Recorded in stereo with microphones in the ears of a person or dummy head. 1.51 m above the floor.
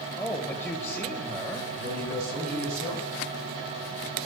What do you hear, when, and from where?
0.2 s a man speaking: 10° left (ahead or behind), 1.5 m
1.8 s a man speaking: 60° right (ahead or behind), 5 m